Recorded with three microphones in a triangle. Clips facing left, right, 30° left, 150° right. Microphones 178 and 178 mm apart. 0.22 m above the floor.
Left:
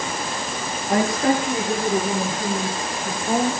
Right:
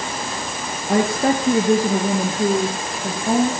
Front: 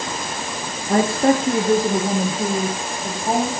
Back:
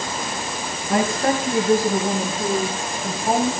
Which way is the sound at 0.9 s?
25° right.